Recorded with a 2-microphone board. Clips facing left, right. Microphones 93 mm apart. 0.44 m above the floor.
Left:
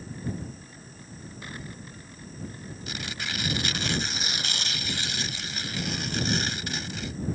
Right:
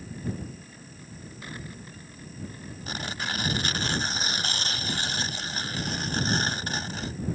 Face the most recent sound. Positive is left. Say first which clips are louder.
# right 3 dB
turn(degrees=-40)  # may be behind; listen again after turning